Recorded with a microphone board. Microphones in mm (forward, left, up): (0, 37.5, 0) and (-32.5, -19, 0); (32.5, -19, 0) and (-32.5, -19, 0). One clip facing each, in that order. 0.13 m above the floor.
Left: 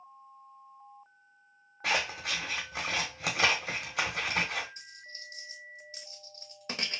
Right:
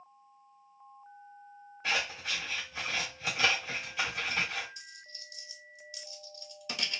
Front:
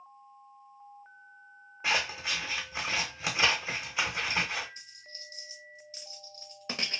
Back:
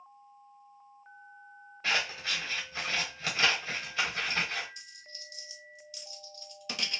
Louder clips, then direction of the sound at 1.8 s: Left 2 dB, front 1 dB; 75° left.